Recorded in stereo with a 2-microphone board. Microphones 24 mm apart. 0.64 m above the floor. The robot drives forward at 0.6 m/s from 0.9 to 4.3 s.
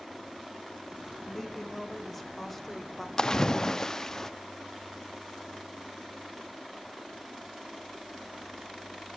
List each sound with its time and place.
1.3 s a woman speaking: centre (ahead or behind), 2.5 m; by 3.1 s 5° left (ahead or behind), 1.6 m
3.2 s a splash: 25° left (ahead or behind), 0.8 m; by 4.3 s 20° left (ahead or behind), 1.0 m